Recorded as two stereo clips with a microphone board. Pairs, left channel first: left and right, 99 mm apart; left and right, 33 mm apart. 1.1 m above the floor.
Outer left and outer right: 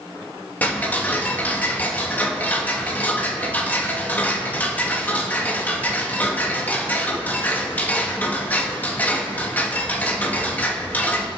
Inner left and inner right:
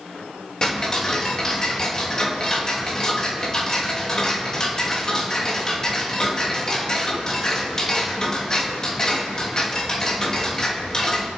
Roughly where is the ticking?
Centre.